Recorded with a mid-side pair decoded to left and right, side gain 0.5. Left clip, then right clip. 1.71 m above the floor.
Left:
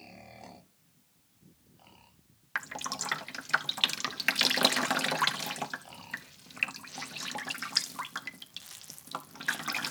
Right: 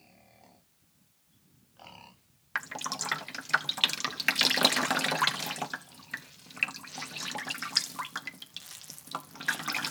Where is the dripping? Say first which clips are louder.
Right 1 dB; 10° right, 0.9 m.